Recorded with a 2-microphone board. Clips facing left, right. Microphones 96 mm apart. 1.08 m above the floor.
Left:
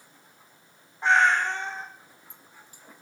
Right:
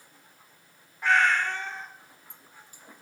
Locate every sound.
1.0 s a cat meowing: 25° left (ahead or behind), 0.7 m